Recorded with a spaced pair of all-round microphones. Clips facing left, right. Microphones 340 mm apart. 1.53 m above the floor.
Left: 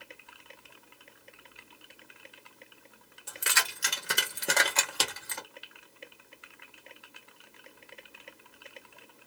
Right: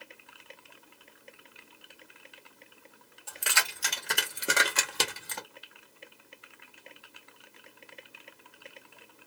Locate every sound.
3.3 s keys jangling: 30° left (ahead or behind), 1.2 m; by 5.4 s 50° right (ahead or behind), 0.8 m